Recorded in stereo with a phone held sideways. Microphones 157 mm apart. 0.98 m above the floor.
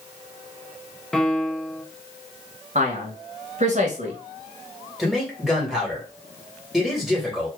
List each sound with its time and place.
1.1 s a piano: 5° left (ahead or behind), 0.6 m
2.8 s a man speaking: 50° right (ahead or behind), 1.2 m
5.0 s a man speaking: centre (ahead or behind), 1.6 m